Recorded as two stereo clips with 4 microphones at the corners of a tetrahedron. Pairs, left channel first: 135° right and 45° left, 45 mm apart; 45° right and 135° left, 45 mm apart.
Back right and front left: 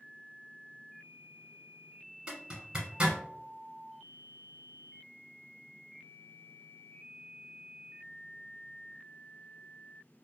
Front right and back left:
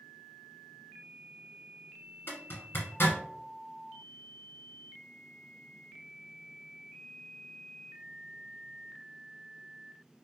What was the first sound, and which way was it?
A zipper, 15° right.